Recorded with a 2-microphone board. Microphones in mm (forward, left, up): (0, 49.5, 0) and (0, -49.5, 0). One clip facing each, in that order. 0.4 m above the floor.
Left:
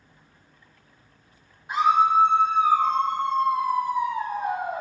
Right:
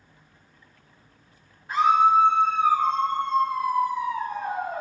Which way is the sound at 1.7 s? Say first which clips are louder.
Right 1 dB; 15° left (ahead or behind).